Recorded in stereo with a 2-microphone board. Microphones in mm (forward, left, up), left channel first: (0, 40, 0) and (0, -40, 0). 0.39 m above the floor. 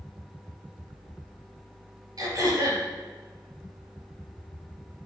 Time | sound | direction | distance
2.2 | throat clearing | 55° right (ahead or behind) | 4.5 m